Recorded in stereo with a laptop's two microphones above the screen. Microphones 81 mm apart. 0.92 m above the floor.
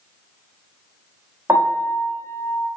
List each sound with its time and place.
1.5 s a piano: 30° right (ahead or behind), 0.5 m